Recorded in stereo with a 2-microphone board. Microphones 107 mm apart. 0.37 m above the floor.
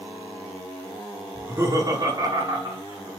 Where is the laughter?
25° right (ahead or behind), 1.3 m; by 3.1 s 45° right (ahead or behind), 2 m.